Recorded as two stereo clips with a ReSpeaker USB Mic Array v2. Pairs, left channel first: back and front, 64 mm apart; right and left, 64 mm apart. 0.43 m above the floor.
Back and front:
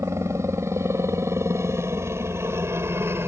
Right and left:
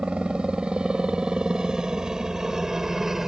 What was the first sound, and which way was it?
A helicopter, 20° left.